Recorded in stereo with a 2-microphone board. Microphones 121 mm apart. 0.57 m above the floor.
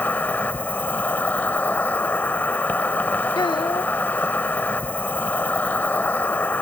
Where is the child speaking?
40° left (ahead or behind).